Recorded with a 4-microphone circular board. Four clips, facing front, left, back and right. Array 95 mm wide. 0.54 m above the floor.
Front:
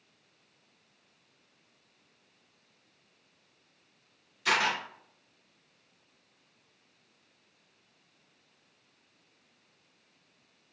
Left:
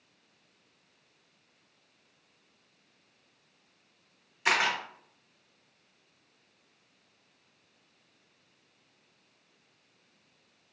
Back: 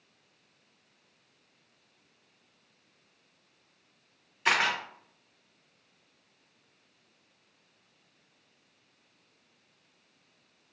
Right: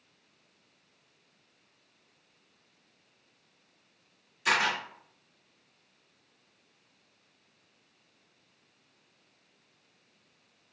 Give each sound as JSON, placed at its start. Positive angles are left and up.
{"t": 4.5, "sound": "a camera shutter", "azimuth_deg": 140, "distance_m": 1.0}